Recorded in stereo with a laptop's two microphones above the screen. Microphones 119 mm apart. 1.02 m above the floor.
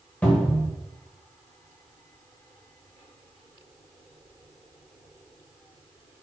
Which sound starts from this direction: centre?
A cupboard door, at 0.2 s.